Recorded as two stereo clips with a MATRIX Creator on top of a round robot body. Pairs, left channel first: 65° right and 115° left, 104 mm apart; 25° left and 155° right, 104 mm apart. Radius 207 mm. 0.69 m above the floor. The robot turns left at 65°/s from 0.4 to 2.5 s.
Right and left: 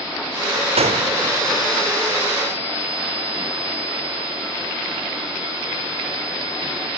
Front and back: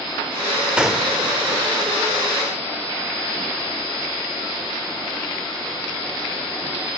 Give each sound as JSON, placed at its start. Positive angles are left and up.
{"t": 0.8, "sound": "a gunshot", "azimuth_deg": 120, "distance_m": 1.5}